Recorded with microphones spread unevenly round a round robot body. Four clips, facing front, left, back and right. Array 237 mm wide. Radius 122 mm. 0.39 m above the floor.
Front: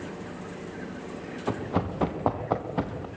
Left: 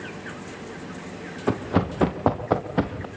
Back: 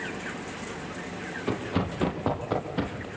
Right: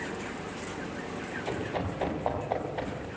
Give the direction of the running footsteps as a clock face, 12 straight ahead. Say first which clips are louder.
Left 10 dB, even; 9 o'clock.